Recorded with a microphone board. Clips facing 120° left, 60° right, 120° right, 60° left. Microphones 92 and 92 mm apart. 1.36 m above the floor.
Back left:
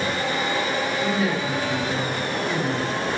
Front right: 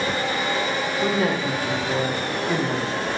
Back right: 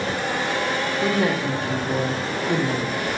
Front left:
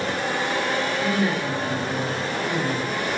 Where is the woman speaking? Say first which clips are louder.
Front right 4 dB, back right 2 dB; 100° right, 1.2 m.